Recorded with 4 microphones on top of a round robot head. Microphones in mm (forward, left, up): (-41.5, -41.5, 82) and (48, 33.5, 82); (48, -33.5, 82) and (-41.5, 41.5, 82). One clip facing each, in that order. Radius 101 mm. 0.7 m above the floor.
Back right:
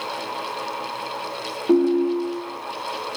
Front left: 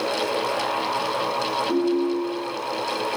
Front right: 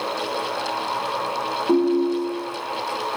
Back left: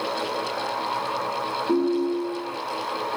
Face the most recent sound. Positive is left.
turn(degrees=-105)